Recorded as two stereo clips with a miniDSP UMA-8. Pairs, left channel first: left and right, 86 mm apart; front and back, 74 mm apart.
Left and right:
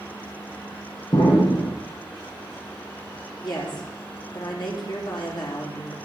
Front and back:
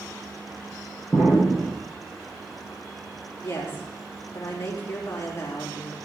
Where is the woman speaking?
60° left, 3 m.